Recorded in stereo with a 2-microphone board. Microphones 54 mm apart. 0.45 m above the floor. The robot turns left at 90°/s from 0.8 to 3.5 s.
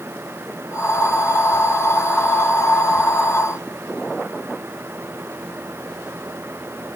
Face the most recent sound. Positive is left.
No sound to turn to.